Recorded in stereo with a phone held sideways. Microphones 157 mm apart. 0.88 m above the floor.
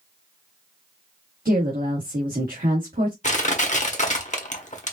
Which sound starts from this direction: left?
Crushing, at 3.2 s.